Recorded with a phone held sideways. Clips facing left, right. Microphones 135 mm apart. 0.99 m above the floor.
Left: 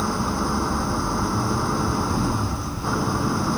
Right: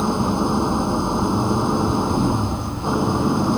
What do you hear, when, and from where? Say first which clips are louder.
0.0 s an engine running: right 5 dB; 20° right (ahead or behind)